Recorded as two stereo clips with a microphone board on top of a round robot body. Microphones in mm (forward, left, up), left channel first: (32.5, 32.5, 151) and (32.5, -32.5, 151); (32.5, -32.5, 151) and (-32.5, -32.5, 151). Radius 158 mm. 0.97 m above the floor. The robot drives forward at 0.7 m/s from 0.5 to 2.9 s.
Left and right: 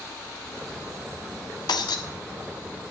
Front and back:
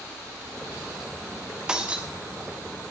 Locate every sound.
1.7 s breaking glass: 100° left, 1.8 m; by 2.0 s 110° left, 1.9 m